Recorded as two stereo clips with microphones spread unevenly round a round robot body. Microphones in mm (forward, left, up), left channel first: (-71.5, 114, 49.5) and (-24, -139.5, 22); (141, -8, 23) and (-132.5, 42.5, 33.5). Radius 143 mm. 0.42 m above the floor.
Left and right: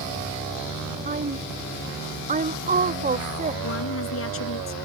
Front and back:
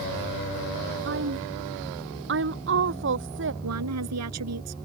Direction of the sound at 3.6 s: 135° left.